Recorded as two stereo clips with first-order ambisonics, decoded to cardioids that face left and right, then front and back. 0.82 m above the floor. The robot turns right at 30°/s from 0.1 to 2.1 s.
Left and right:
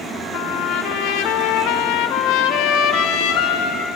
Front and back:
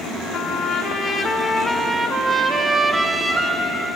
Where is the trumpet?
50° left, 1.7 m; by 3.9 s 100° left, 1.7 m.